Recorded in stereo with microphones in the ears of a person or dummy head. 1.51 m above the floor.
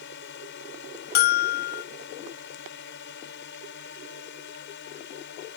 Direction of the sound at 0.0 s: 60° left (ahead or behind).